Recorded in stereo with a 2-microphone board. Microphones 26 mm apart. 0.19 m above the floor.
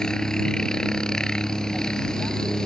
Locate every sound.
0.0 s a helicopter: 30° left (ahead or behind)